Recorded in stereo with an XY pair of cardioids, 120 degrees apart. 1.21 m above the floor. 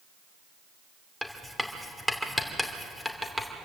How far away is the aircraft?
No aircraft in this recording.